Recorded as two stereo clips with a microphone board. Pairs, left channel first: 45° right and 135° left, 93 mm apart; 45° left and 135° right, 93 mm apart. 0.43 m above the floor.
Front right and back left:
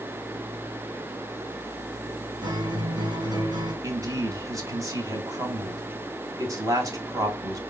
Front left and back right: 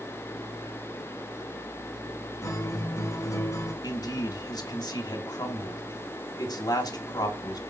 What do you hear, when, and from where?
2.4 s a guitar: 95° left, 3 m
3.8 s a man speaking: 85° left, 2.5 m